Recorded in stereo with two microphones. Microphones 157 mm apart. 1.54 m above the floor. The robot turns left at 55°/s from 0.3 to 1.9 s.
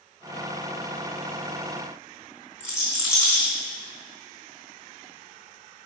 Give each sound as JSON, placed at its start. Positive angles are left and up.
{"t": 2.6, "sound": "a rattle", "side_deg": 0, "distance_m": 3.5}